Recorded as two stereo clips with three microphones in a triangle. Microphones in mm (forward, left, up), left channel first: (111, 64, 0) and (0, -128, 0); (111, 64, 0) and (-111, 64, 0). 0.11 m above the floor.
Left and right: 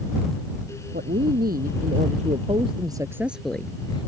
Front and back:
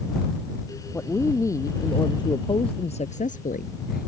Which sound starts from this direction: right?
A woman speaking, at 0.9 s.